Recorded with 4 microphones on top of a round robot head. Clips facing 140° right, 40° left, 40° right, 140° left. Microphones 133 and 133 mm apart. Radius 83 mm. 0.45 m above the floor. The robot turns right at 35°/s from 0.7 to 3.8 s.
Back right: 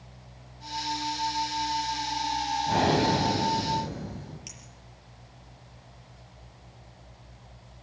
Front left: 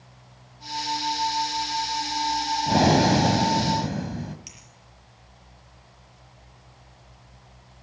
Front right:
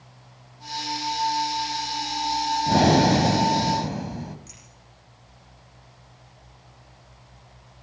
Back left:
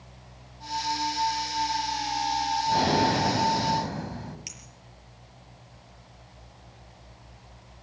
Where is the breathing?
10° right, 2 m; by 4.4 s 30° left, 2 m.